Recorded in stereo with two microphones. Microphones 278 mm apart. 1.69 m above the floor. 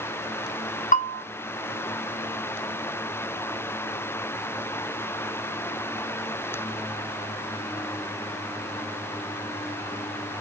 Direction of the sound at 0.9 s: 30° left (ahead or behind).